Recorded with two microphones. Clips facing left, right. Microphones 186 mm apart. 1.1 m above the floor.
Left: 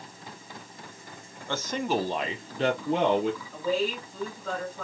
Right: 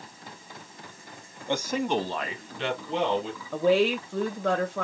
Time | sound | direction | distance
1.5 | a man speaking | 20° right (ahead or behind) | 0.8 m
3.5 | a woman speaking | 80° right | 0.8 m